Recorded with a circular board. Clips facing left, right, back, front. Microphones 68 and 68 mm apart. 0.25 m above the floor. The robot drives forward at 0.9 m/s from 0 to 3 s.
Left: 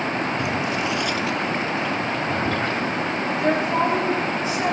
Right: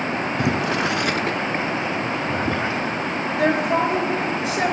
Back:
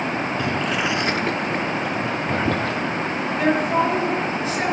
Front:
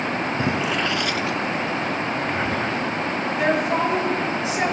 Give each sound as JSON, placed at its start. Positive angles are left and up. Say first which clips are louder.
{"t": 0.4, "sound": "boiling", "louder": "right 2 dB, front 1 dB", "azimuth_deg": -60, "distance_m": 0.5}
{"t": 3.4, "sound": "a woman speaking", "louder": "right 2 dB, back 2 dB", "azimuth_deg": -85, "distance_m": 4.0}